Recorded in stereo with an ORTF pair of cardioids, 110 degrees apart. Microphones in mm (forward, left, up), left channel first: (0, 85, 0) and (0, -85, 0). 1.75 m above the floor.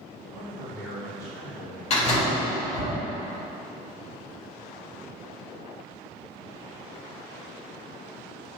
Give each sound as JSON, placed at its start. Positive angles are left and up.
{"t": 0.3, "sound": "a man speaking", "azimuth_deg": 30, "distance_m": 1.4}
{"t": 1.9, "sound": "a door slam", "azimuth_deg": 40, "distance_m": 1.6}